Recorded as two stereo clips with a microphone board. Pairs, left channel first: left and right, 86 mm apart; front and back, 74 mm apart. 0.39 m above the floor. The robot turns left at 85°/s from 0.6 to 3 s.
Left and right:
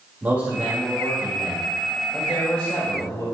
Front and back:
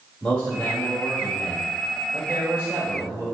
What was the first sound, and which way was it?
A man speaking, 50° right.